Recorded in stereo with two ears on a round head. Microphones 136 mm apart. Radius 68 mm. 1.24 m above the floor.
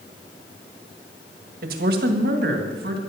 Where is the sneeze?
No sneeze in this recording.